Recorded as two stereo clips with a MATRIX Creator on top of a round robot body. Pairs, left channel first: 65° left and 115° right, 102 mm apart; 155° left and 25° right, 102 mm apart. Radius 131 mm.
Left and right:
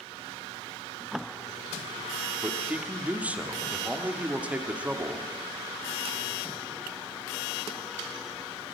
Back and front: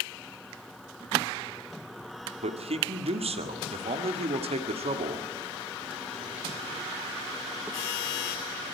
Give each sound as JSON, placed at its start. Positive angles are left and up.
{"t": 2.4, "sound": "a man speaking", "azimuth_deg": -35, "distance_m": 2.5}